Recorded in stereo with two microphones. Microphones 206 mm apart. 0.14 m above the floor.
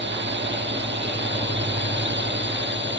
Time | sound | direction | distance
0.0 | a drone | 65° right (ahead or behind) | ?